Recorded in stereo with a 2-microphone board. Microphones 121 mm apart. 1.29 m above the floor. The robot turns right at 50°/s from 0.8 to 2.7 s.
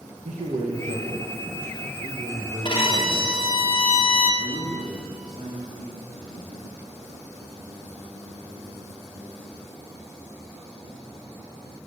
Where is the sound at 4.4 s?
70° right (ahead or behind), 2.5 m.